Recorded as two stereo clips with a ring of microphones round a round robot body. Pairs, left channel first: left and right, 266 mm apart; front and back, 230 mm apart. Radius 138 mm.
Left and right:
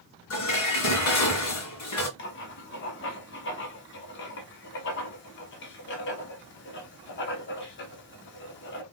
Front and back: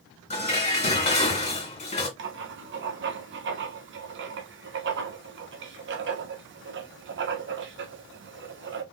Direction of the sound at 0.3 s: 60° left.